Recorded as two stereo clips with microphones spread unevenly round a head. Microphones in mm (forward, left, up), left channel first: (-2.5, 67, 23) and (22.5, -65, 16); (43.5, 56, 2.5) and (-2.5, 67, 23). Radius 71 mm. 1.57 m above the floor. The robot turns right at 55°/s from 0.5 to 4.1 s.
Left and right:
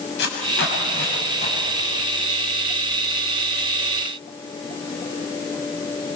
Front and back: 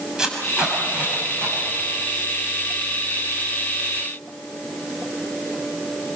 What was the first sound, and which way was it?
Tape being pulled, 95° left.